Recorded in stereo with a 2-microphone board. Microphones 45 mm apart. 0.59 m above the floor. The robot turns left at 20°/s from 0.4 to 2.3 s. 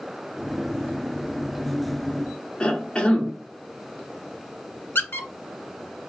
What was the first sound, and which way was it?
A cough, 25° left (ahead or behind).